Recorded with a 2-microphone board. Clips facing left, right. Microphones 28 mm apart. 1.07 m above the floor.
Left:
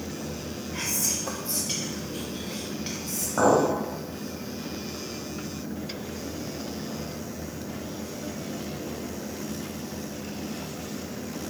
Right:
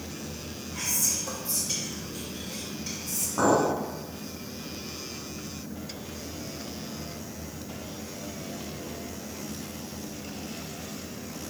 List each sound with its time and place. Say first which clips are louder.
0.7 s whispering: even; 40° left (ahead or behind), 0.9 m
3.4 s a clink: left 2 dB; 85° left, 3.5 m